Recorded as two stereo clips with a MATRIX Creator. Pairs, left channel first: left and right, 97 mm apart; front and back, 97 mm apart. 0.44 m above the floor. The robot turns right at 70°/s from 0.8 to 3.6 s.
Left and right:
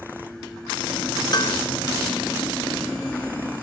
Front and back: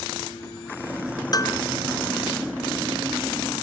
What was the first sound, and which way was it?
Dishes clattering, 45° left.